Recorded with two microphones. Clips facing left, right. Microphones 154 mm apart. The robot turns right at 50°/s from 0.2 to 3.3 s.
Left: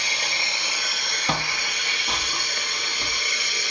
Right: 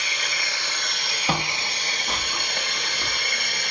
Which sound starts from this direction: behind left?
Running water, at 0.0 s.